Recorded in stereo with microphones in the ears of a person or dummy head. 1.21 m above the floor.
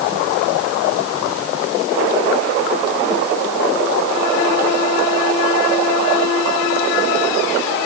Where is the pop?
I don't hear a pop.